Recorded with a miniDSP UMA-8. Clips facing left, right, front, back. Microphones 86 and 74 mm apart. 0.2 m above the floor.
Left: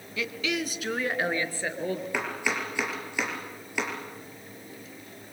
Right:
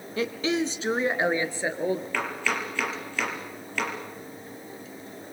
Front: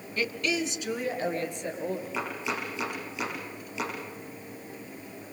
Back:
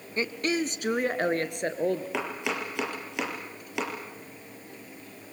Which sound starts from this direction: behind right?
A woman speaking, at 0.2 s.